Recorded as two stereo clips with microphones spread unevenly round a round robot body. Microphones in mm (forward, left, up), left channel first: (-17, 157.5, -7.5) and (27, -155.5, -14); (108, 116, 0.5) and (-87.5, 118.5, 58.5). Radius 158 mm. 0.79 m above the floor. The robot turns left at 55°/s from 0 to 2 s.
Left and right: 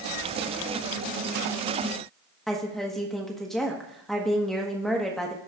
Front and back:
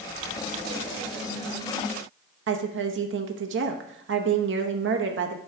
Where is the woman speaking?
175° right, 1.0 m.